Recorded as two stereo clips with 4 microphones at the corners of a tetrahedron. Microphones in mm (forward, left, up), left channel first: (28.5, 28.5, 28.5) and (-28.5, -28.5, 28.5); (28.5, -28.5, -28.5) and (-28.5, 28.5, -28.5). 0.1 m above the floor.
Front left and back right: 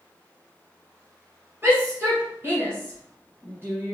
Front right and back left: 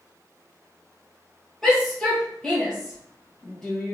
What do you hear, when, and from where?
1.6 s a shout: 125° right, 1.8 m